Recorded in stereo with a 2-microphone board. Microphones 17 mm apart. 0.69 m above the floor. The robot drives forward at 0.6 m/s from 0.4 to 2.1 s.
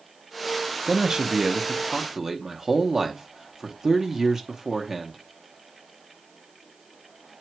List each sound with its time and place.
0.9 s a man speaking: 40° right (ahead or behind), 0.7 m; by 5.2 s 30° right (ahead or behind), 0.9 m